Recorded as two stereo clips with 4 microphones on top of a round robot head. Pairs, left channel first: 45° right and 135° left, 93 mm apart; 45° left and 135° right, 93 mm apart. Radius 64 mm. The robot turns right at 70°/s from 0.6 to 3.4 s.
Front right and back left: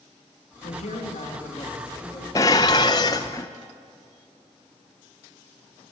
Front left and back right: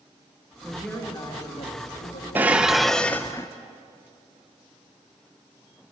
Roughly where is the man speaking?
Ahead right.